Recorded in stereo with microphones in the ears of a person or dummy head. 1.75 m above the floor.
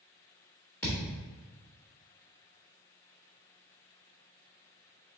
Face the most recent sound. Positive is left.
turn(degrees=15)  # may be behind; listen again after turning